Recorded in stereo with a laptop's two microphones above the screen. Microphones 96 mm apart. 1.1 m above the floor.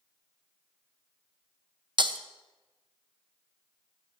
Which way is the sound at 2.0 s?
55° right (ahead or behind).